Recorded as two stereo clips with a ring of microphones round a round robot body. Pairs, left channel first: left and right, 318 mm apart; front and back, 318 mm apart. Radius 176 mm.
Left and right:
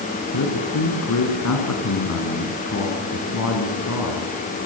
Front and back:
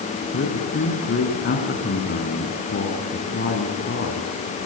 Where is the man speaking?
55° left, 4.5 m.